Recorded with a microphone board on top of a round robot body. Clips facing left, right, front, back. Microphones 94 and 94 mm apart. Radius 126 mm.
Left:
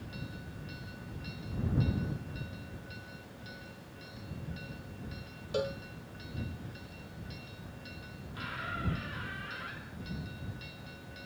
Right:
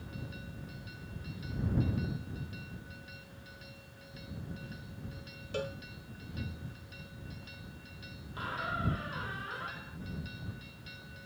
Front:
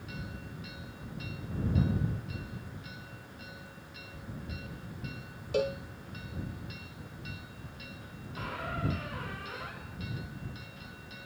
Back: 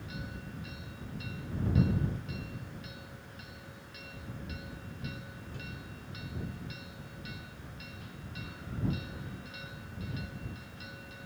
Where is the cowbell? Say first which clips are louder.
Left 4 dB, front 19 dB; 15° left.